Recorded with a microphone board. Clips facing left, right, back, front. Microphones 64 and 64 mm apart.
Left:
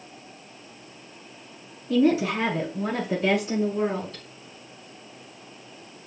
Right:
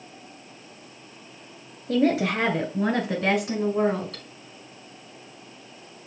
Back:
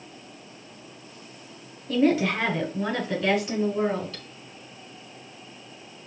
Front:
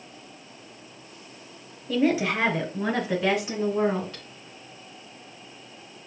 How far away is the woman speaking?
About 2 m.